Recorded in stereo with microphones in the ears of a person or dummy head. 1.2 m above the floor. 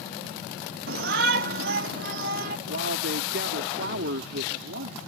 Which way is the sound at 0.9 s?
60° right (ahead or behind).